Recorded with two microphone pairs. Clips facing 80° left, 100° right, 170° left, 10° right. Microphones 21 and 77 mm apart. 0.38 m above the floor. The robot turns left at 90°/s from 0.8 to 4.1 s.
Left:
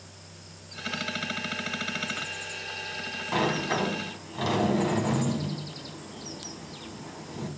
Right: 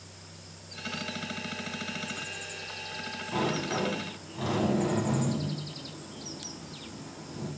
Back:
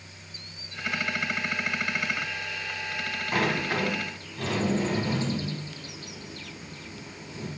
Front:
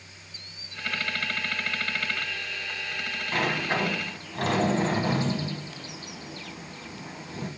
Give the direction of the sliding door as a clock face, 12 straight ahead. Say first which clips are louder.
Left 3 dB, even; 9 o'clock.